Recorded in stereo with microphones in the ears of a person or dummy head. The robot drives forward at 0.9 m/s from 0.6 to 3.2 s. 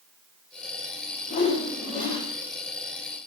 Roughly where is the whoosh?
Left.